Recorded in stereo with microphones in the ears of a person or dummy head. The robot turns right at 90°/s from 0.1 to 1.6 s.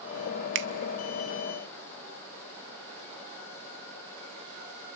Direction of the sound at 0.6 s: 65° right (ahead or behind).